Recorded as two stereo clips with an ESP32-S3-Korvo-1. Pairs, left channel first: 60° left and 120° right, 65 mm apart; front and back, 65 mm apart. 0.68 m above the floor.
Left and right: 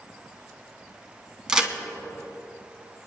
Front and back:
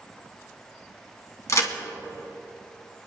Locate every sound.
1.5 s a crack: 40° right, 1.9 m